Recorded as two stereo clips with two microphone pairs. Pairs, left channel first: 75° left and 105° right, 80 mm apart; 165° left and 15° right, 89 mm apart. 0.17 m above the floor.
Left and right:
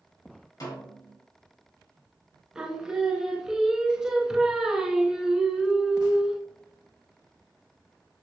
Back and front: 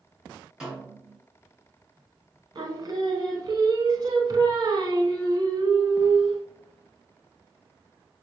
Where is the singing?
30° right, 0.7 m.